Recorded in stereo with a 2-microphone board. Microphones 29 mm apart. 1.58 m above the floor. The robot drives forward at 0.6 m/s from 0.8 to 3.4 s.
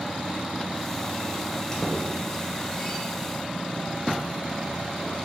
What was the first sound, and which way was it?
A squeak, 20° left (ahead or behind).